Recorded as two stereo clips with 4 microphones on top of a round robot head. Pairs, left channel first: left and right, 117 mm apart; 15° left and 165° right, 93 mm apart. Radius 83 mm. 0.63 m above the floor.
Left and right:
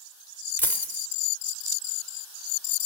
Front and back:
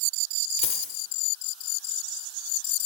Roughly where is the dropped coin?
Ahead.